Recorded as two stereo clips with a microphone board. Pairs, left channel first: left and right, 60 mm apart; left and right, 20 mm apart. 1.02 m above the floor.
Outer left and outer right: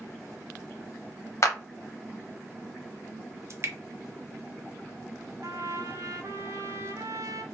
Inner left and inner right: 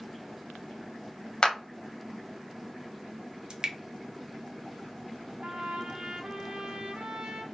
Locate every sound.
1.4 s a clap: 50° left (ahead or behind), 0.7 m
3.5 s dripping: 50° right (ahead or behind), 0.6 m
5.4 s a trumpet: 55° right (ahead or behind), 0.7 m